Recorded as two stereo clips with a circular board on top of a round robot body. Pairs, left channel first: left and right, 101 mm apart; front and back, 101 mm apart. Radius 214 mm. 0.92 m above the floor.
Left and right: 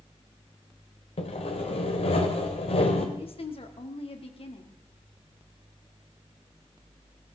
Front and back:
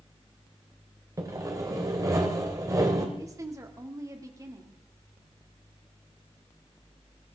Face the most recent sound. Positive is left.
turn(degrees=120)